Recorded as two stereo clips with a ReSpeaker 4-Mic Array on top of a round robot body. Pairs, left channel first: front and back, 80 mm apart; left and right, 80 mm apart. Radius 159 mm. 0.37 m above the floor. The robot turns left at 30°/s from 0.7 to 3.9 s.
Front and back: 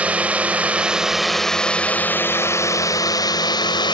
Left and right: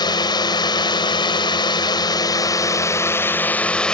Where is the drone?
105° left; by 4.0 s 10° left.